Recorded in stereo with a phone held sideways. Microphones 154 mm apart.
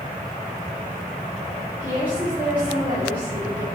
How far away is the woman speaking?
About 3 m.